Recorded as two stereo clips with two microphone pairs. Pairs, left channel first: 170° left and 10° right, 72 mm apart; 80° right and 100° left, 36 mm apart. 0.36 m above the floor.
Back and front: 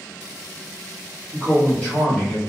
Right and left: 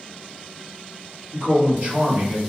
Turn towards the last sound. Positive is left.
turn(degrees=80)